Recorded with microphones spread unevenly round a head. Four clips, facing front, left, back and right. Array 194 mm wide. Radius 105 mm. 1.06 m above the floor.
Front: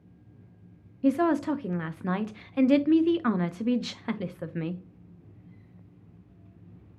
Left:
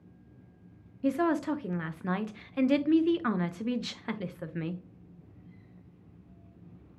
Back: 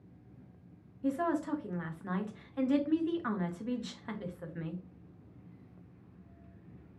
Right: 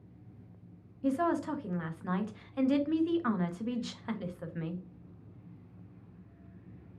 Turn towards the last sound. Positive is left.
turn(degrees=25)